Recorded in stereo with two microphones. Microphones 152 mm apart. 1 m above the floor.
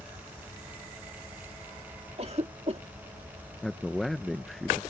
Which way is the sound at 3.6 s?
Centre (ahead or behind).